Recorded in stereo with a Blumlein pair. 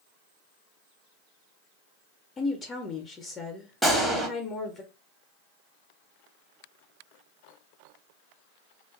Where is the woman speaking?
20° left, 0.6 m.